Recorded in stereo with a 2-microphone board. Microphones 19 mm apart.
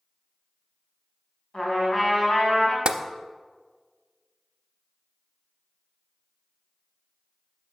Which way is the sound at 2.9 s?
60° right (ahead or behind).